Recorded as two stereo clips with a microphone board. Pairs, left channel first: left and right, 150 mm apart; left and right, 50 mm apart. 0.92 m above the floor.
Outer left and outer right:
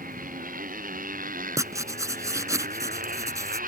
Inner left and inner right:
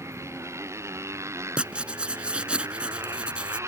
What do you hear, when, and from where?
0.0 s a motorcycle: 65° right (ahead or behind)
1.6 s writing: 20° right (ahead or behind)